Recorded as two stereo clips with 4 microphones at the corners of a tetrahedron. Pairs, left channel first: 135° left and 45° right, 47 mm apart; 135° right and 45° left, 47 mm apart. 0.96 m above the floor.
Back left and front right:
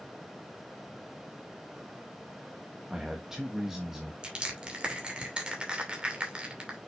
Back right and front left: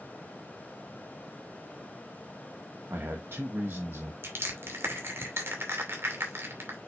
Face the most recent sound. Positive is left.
turn(degrees=25)